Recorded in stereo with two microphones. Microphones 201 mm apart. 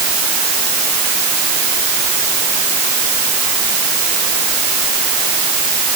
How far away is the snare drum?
I don't hear a snare drum.